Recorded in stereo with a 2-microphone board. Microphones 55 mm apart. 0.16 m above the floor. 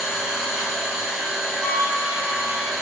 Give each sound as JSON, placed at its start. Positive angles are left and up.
{"t": 0.0, "sound": "an engine running", "side_deg": -10, "distance_m": 1.9}
{"t": 1.6, "sound": "a flute", "side_deg": 25, "distance_m": 0.9}